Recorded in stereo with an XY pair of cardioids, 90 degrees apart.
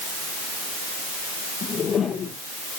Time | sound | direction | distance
1.6 | a whoosh | 65° left | 3 m